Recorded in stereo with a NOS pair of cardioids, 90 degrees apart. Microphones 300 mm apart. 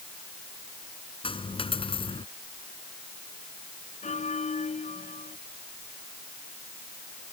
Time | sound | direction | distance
1.2 | a dropped coin | 15° left | ?
4.0 | a bell | 25° left | ?